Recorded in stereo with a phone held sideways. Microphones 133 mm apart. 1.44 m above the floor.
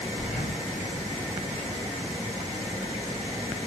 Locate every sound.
0.2 s breathing: 75° left (ahead or behind), 8 m